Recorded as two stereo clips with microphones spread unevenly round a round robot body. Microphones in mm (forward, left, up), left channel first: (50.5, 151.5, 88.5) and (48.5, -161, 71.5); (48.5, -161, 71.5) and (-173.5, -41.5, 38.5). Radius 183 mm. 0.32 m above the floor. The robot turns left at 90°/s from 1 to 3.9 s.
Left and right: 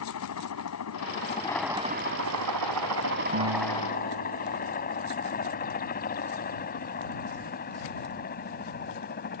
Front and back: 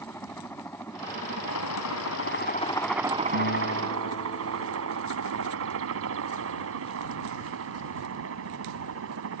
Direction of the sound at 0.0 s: 55° left.